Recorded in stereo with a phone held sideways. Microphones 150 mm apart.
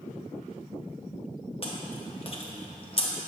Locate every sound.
1.6 s chewing: 40° left (ahead or behind), 0.9 m